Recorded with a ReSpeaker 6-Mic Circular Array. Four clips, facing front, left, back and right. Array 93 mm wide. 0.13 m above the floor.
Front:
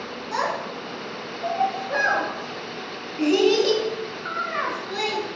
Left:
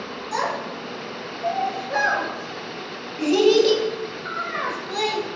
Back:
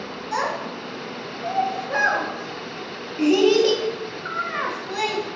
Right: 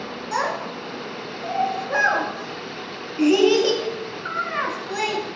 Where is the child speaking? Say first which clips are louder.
Right 1 dB, back 1 dB; 105° right, 0.7 m.